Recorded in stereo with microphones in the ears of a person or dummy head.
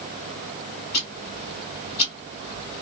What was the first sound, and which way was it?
Ticking, 25° left (ahead or behind).